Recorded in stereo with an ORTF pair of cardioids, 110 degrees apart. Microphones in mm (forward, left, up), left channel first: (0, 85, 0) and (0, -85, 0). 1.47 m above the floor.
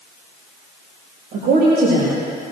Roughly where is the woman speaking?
Right.